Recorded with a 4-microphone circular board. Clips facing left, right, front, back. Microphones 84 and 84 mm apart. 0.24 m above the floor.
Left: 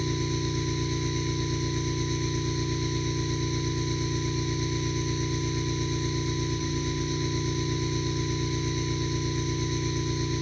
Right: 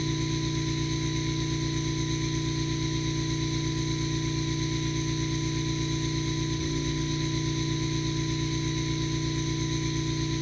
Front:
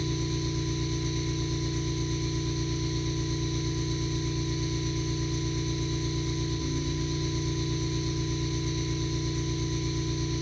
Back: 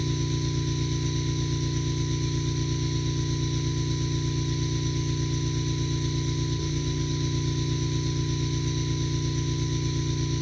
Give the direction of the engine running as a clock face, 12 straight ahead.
7 o'clock.